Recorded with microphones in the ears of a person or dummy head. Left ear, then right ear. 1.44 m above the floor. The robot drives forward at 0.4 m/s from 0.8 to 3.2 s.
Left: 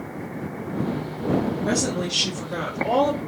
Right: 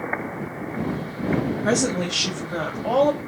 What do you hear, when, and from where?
1.6 s a woman speaking: 45° right (ahead or behind), 0.5 m; by 3.2 s 20° right (ahead or behind), 1.0 m